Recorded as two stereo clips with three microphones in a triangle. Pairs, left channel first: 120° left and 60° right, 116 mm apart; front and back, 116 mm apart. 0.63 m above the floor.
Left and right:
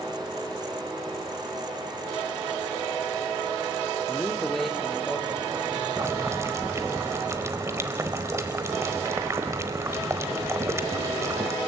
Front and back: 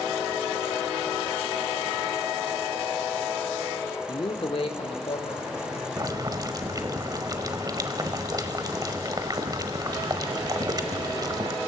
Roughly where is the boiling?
Behind right.